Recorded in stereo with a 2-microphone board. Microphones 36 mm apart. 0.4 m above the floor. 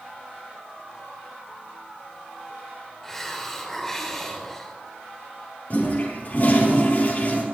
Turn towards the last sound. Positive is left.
turn(degrees=45)  # may be behind; listen again after turning